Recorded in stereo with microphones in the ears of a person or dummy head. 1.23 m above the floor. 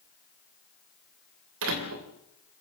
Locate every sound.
1.6 s a door slam: 80° right, 3 m